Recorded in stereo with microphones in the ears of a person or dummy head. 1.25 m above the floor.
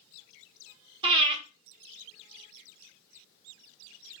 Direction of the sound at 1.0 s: 25° right (ahead or behind).